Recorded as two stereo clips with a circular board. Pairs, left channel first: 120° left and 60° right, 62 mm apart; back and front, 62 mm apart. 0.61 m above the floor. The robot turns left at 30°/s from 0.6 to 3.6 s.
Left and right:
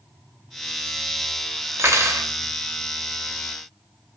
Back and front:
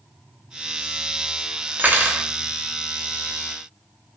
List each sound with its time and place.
1.8 s cutlery clinking: 50° right, 0.5 m; by 2.3 s 65° right, 0.5 m